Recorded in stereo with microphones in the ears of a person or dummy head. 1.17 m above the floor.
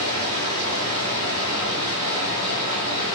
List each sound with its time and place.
0.0 s running water: 30° right (ahead or behind), 2 m